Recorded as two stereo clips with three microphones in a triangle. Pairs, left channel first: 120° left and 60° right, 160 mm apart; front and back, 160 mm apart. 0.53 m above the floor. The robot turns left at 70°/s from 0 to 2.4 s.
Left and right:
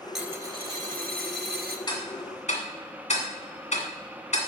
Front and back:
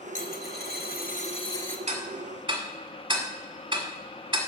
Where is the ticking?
170° left, 1.8 m; by 4.4 s 130° left, 1.8 m.